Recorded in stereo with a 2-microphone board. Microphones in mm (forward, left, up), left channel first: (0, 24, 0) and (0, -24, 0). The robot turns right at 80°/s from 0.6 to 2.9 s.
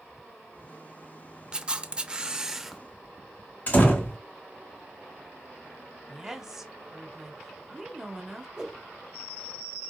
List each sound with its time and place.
1.5 s a camera shutter: 20° right (ahead or behind), 0.5 m; by 2.8 s centre (ahead or behind), 0.5 m
3.7 s a door slam: 40° left (ahead or behind), 1.7 m
6.1 s a woman speaking: 10° right (ahead or behind), 1.2 m
8.6 s a whoosh: 10° right (ahead or behind), 1.1 m